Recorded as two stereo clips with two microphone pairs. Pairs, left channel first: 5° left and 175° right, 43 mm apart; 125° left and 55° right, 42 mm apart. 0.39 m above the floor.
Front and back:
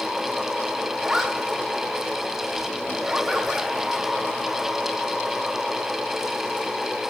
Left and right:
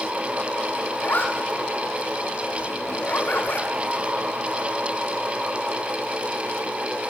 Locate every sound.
1.0 s a zipper: 105° left, 1.7 m